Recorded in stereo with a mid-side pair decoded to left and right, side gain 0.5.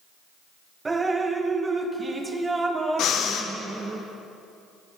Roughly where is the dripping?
Ahead right.